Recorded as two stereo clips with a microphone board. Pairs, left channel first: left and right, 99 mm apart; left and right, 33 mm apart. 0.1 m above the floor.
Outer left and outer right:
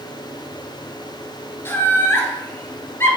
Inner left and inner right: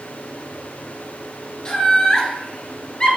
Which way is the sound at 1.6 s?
25° left (ahead or behind).